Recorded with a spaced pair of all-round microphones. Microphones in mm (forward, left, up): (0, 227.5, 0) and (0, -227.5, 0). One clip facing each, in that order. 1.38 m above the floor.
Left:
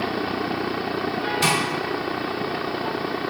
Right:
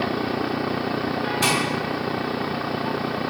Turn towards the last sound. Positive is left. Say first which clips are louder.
# even
turn(degrees=35)  # may be behind; listen again after turning